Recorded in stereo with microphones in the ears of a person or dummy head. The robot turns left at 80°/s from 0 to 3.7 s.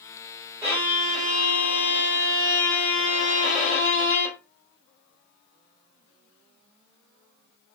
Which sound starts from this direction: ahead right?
A violin, at 0.6 s.